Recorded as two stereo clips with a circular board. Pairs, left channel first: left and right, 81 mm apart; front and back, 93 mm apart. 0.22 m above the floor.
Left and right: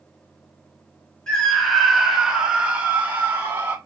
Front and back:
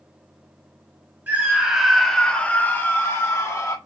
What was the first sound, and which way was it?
A scream, 155° left.